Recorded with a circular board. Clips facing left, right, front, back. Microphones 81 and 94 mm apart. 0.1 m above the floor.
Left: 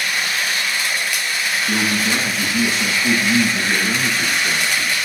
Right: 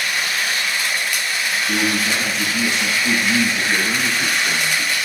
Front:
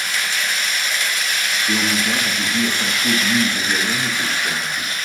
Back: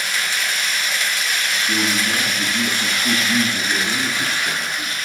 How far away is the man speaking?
About 6.5 m.